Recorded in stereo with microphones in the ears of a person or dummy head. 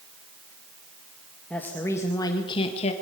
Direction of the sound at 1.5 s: 10° left (ahead or behind).